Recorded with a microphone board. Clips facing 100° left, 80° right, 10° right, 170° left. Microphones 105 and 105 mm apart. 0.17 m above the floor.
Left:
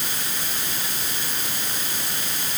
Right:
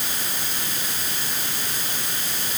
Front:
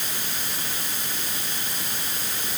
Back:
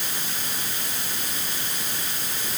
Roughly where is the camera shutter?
I don't hear a camera shutter.